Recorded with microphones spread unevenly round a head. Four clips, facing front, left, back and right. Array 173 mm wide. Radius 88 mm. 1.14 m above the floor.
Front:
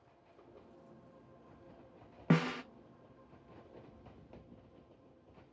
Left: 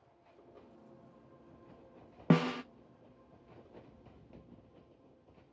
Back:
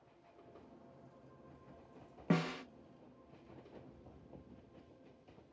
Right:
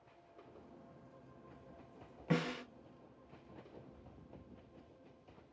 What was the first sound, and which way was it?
A snare drum, 80° left.